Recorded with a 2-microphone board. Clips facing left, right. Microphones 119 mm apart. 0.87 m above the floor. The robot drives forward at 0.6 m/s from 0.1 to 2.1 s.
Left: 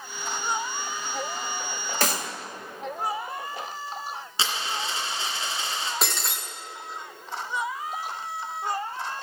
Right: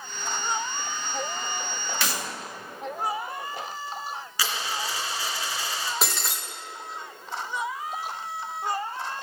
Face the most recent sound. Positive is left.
turn(degrees=0)  # may be behind; listen again after turning